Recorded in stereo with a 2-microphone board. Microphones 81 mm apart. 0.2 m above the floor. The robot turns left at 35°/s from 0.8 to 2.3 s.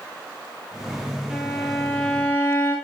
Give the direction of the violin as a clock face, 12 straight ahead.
6 o'clock.